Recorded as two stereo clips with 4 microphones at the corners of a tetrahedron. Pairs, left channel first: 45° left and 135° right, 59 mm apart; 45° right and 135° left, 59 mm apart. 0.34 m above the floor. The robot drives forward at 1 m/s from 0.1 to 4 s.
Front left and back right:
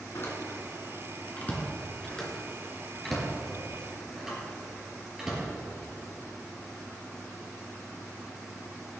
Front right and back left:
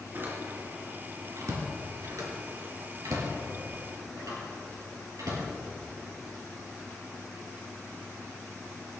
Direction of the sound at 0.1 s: 85° left.